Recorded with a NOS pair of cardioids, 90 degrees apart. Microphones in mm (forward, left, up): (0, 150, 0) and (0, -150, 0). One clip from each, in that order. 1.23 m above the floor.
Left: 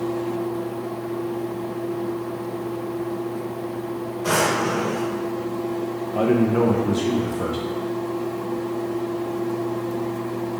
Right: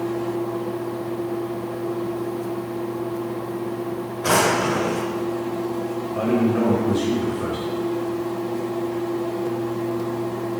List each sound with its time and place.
4.2 s a drawer: 45° right, 1.5 m
6.2 s a man speaking: 20° left, 0.7 m